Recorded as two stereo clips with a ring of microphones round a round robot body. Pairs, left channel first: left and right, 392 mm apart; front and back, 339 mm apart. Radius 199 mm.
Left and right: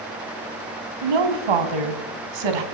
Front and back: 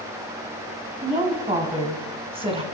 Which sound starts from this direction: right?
A woman speaking, at 1.0 s.